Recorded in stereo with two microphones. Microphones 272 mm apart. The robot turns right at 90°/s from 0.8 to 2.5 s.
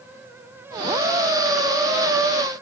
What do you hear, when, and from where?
Only background noise.